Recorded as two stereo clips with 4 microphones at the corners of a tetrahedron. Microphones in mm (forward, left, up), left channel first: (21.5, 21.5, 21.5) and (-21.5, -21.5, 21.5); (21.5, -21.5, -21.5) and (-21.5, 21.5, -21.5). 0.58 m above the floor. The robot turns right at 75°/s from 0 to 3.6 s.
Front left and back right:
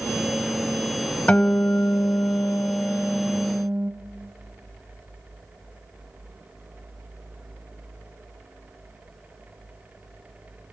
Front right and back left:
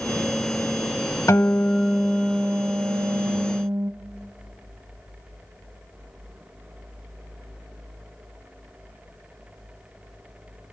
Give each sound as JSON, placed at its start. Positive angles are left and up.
{"t": 1.3, "sound": "a guitar", "azimuth_deg": -20, "distance_m": 0.6}